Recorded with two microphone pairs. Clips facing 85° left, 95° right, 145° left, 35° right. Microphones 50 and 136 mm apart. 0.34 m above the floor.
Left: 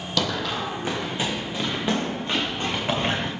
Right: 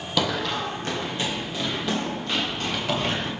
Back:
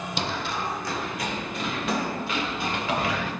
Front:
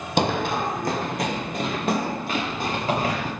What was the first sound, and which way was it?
Running footsteps, 15° right.